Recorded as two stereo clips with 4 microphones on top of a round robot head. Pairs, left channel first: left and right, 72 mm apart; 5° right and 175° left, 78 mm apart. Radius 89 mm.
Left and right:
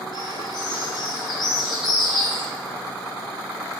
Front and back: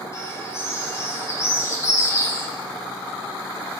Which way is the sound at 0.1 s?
50° left.